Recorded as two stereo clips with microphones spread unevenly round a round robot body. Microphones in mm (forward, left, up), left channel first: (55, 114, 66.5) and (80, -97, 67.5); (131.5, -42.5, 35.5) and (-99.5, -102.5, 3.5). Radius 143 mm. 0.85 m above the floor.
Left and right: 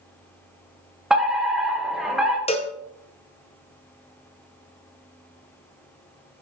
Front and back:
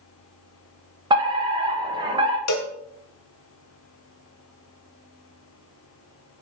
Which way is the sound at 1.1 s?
170° right.